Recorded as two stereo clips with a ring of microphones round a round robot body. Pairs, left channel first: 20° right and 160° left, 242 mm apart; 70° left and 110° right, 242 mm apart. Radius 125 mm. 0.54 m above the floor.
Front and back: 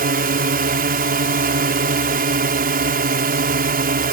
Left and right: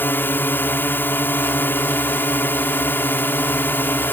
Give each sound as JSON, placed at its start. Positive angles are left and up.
{"t": 0.0, "sound": "a drone", "azimuth_deg": 145}